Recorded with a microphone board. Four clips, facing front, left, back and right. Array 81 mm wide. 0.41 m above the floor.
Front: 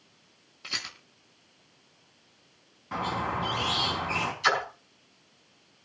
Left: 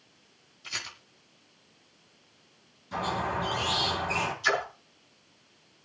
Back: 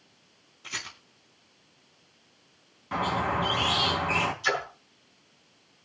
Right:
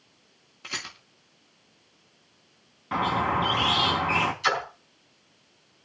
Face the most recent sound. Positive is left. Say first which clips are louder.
# right 1 dB, front 3 dB
turn(degrees=-45)